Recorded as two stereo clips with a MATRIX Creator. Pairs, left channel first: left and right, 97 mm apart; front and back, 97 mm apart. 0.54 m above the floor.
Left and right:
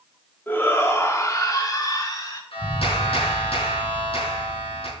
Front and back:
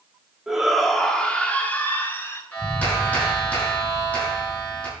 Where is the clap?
70° left, 5 m.